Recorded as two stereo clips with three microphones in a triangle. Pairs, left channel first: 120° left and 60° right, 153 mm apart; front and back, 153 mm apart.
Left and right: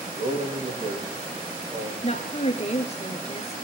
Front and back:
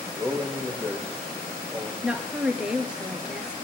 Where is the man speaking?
85° right, 6 m.